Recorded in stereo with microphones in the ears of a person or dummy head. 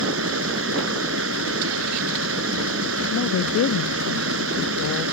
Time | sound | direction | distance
0.0 | running water | 85° right | ?
3.1 | a woman speaking | 80° left | ?